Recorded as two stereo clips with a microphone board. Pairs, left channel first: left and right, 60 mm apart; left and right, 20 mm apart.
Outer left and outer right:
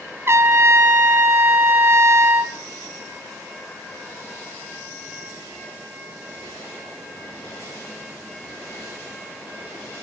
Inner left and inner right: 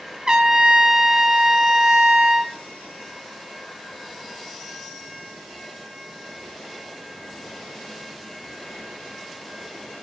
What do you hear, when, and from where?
0.3 s a trumpet: 45° right (ahead or behind), 2.5 m